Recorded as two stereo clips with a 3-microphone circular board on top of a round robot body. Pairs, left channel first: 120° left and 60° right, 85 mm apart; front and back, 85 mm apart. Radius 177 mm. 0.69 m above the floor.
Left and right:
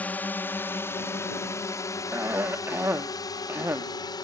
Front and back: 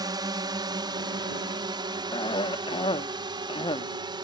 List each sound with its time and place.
0.0 s a drone: 175° right; by 4.2 s 155° left
2.1 s a cough: 5° left